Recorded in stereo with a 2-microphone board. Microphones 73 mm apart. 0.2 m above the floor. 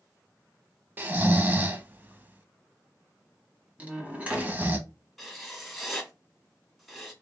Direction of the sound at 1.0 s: 25° right (ahead or behind).